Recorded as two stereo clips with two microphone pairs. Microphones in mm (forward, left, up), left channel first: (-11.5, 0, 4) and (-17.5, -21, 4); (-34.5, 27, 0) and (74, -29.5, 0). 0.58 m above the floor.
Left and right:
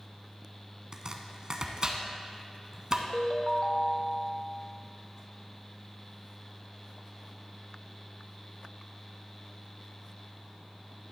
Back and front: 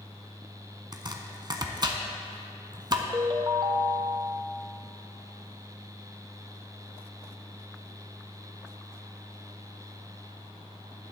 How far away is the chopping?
About 0.7 m.